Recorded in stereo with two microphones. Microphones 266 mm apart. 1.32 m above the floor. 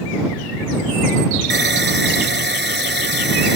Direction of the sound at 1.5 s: 40° right (ahead or behind).